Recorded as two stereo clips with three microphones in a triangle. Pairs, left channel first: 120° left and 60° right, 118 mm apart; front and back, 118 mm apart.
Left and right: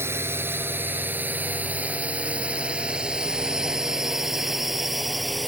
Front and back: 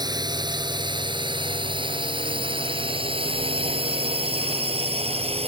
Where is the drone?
130° right; by 5.5 s 150° right.